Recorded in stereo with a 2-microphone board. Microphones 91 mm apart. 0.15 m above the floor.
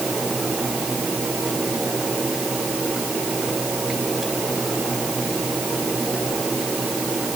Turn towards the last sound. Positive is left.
No sound to turn to.